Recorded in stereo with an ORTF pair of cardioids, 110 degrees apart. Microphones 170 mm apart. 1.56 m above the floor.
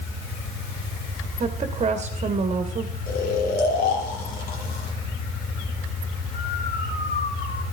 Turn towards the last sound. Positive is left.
turn(degrees=65)